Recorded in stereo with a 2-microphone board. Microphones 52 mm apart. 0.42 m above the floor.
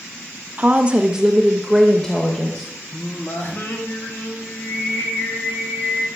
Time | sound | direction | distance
0.6 | a woman speaking | 25° right (ahead or behind) | 1.0 m
2.9 | singing | 45° left (ahead or behind) | 2.5 m